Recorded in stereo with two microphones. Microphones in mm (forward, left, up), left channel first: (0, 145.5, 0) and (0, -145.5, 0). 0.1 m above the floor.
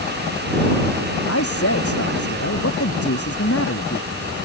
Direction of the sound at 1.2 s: 50° left (ahead or behind).